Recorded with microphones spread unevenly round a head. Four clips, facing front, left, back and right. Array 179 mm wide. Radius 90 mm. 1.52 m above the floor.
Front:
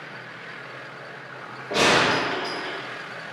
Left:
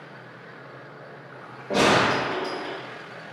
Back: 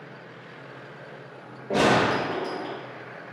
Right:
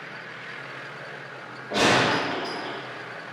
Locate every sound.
1.7 s a gunshot: 125° left, 1.2 m